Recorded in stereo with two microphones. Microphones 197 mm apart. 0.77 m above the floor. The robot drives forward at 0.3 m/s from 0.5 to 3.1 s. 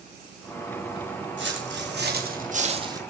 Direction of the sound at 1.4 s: 70° right (ahead or behind).